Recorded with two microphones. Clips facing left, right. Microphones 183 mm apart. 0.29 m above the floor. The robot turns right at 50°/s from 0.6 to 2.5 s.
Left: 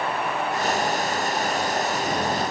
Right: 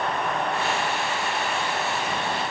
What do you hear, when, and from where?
Only background noise.